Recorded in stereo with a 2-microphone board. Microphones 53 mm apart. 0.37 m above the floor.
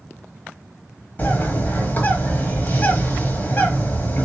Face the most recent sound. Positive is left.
turn(degrees=35)  # may be behind; listen again after turning